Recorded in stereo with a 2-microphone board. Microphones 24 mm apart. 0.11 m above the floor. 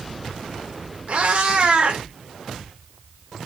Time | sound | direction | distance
1.1 | a cat meowing | 50° right (ahead or behind) | 3.5 m